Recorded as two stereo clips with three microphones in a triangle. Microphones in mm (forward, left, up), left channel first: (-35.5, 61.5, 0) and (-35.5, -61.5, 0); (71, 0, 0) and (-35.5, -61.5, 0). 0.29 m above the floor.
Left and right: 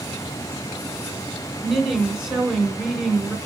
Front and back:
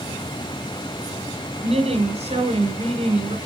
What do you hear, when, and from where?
1.6 s a woman speaking: 175° right, 2.5 m